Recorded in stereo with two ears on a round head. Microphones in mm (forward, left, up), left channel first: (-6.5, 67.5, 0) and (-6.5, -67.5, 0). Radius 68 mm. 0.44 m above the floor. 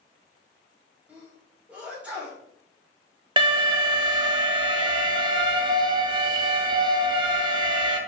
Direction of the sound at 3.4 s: 30° right (ahead or behind).